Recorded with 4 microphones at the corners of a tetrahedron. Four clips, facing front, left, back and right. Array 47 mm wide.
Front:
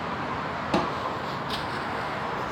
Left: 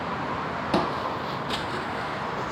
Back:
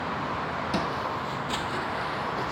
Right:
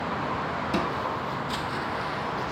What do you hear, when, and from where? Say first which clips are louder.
0.7 s footsteps: left 4 dB, front 4 dB; 65° left, 0.7 m; by 2.5 s 165° left, 0.8 m